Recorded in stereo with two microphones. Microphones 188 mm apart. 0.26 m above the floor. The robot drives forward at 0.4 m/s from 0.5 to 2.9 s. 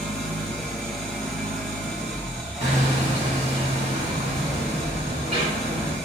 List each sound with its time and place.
0.0 s an engine running: centre (ahead or behind), 2.5 m
2.6 s hammering: 35° right (ahead or behind), 3 m